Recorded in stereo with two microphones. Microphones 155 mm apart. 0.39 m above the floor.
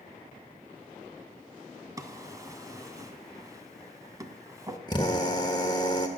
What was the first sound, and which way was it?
A drawer, 20° right (ahead or behind).